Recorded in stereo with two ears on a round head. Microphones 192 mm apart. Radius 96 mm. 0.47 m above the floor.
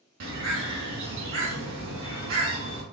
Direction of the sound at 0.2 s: 65° right (ahead or behind).